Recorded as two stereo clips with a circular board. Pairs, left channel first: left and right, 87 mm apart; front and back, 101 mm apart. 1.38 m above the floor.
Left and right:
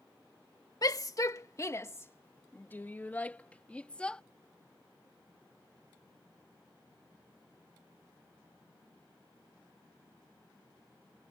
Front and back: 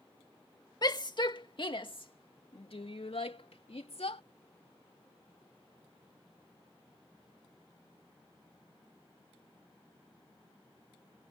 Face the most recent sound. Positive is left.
turn(degrees=10)